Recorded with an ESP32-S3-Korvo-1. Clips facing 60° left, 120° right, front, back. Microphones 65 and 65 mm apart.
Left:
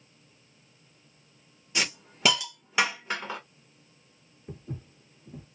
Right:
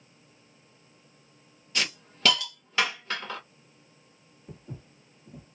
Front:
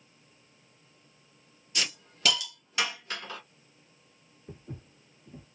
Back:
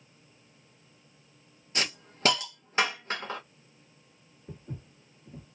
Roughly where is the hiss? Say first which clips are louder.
Left 1 dB, back 2 dB; behind left.